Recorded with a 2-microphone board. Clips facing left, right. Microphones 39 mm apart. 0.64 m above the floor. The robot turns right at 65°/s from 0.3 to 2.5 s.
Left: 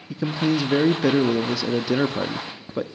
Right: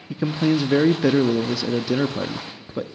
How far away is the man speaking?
About 0.6 m.